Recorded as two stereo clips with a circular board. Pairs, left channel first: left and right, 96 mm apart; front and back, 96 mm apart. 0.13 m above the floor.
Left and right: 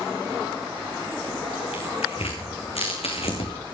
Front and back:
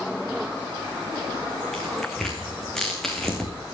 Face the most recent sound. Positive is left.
turn(degrees=85)